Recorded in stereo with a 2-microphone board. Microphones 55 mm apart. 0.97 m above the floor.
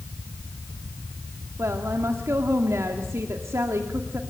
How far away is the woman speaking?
About 2 m.